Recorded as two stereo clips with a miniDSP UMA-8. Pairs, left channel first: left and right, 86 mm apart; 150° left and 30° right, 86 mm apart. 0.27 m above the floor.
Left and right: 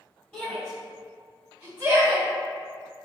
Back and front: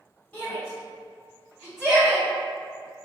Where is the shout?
130° left, 1.4 m; by 2.2 s 85° right, 1.6 m.